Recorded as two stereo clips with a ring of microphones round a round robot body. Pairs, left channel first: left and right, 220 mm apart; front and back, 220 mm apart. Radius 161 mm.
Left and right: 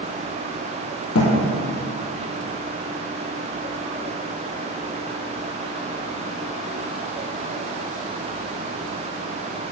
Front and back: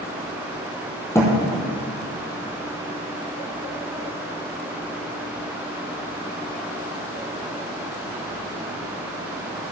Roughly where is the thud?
Left.